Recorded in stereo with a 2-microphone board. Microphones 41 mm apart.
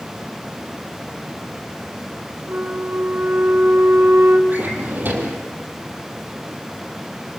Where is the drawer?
50° right (ahead or behind), 3.5 m.